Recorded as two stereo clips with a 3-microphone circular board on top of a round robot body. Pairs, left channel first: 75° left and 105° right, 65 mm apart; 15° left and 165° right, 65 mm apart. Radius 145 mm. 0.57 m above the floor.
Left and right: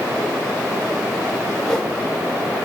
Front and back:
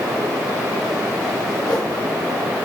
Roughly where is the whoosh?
Ahead.